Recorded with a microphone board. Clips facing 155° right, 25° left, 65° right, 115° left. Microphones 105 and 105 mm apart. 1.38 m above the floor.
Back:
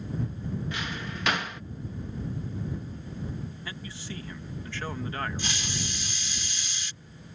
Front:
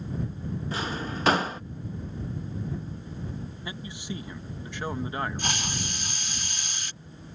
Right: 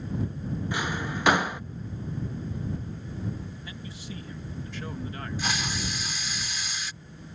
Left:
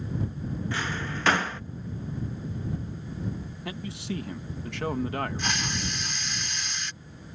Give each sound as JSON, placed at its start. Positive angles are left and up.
{"t": 0.7, "sound": "a drawer", "azimuth_deg": 0}
{"t": 3.6, "sound": "a man speaking", "azimuth_deg": 95}
{"t": 5.4, "sound": "a hiss", "azimuth_deg": 20}